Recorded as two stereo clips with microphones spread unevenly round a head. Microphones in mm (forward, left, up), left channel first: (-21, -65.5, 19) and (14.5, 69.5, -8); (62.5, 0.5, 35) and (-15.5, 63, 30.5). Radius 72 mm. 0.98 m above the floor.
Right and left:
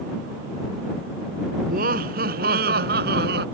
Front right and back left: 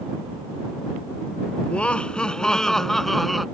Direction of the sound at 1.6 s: 40° left.